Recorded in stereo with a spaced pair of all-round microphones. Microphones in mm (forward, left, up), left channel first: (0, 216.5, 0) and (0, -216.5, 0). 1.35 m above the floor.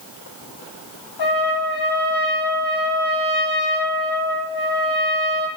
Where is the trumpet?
60° left (ahead or behind), 0.8 m.